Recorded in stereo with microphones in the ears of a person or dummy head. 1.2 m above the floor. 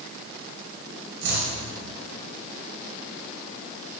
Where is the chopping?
75° right (ahead or behind), 5 m.